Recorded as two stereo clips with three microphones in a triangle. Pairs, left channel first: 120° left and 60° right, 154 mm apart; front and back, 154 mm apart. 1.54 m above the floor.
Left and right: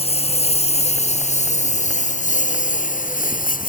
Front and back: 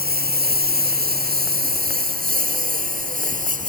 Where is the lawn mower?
170° left; by 3.7 s 150° left.